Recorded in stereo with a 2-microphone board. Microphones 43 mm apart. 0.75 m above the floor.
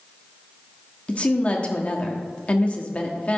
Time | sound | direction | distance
1.1 | a woman speaking | 30° left (ahead or behind) | 1.3 m